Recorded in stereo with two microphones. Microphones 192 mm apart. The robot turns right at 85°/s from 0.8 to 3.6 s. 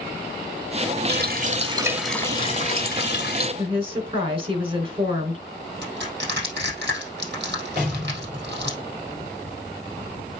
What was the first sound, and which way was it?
A running tap, 85° right.